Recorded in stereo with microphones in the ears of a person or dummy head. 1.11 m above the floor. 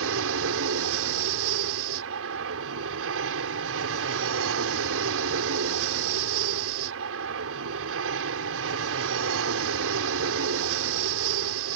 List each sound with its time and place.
0.0 s an aircraft: 70° right (ahead or behind)